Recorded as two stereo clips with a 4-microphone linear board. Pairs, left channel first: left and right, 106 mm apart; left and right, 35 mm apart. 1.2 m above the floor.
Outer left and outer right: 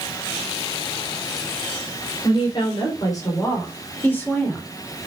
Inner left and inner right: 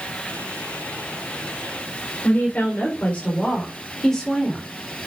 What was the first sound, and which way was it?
A woman speaking, 50° left (ahead or behind).